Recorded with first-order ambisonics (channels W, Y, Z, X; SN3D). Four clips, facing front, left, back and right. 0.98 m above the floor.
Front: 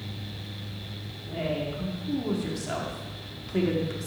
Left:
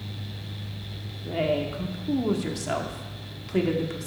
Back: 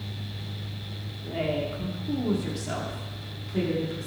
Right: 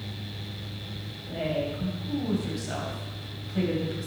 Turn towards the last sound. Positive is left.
turn(degrees=65)